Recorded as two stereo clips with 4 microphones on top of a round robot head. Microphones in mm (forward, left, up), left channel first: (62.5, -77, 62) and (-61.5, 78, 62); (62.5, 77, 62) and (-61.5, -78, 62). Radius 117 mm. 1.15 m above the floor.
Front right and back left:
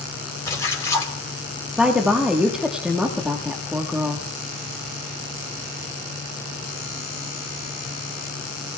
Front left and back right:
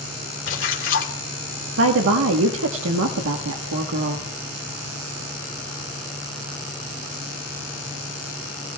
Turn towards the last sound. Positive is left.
turn(degrees=-145)